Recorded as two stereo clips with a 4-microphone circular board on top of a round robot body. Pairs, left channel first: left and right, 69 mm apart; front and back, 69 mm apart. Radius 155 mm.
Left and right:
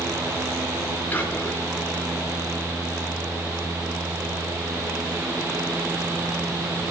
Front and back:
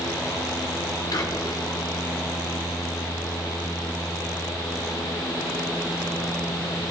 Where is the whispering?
25° left, 7.5 m.